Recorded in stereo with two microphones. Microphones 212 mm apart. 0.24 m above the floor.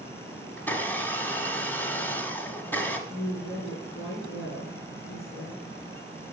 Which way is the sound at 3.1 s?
75° left (ahead or behind).